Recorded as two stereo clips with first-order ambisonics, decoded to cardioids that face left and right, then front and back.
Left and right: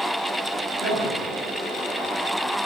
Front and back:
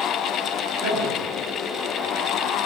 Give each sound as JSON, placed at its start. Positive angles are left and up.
{"t": 0.8, "sound": "a man speaking", "azimuth_deg": -125, "distance_m": 7.5}